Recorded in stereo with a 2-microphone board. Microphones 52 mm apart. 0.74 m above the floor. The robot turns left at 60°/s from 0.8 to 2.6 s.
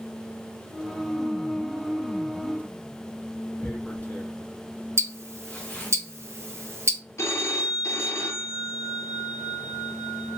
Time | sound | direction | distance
3.6 | tearing paper | 35° left (ahead or behind) | 0.8 m
5.0 | ticking | 60° right (ahead or behind) | 0.6 m
7.2 | a phone ringing | 65° left (ahead or behind) | 0.7 m